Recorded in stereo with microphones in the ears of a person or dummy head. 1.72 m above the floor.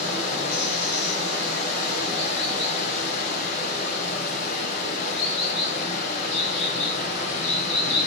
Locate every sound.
0.0 s running water: 45° left (ahead or behind), 6 m